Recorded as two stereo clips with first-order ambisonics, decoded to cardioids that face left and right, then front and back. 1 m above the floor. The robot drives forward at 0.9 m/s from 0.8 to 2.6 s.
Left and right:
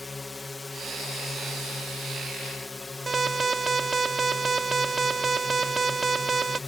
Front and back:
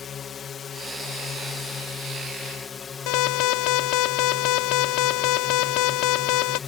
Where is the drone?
20° left.